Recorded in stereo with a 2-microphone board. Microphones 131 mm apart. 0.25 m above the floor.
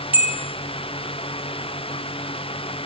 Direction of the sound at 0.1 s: 10° right (ahead or behind).